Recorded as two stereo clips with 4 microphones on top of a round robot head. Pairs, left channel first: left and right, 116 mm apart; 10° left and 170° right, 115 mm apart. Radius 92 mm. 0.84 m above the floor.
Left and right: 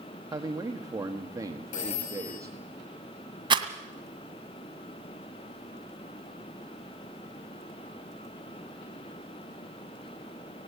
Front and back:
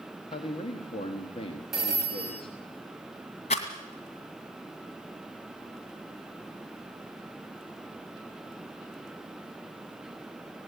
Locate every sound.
0.3 s a man speaking: 30° right, 1.3 m
1.7 s a phone ringing: 100° left, 5 m
3.5 s a rattle: 40° right, 2.0 m